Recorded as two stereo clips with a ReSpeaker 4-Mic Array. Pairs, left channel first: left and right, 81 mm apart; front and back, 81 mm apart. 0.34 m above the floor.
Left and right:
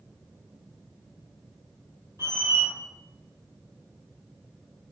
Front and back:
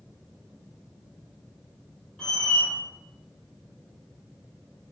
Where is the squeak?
80° right, 1.0 m.